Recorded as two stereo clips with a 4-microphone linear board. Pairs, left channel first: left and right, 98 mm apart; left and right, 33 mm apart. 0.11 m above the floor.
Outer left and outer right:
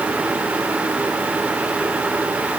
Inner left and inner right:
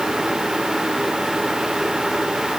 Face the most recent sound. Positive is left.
No sound to turn to.